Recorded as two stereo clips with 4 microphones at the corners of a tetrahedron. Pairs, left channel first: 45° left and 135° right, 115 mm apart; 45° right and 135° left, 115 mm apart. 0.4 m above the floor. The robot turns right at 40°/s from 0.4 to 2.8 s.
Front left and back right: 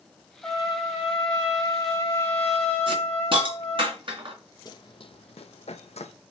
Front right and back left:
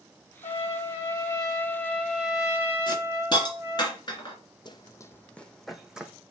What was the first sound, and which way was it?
A trumpet, 30° right.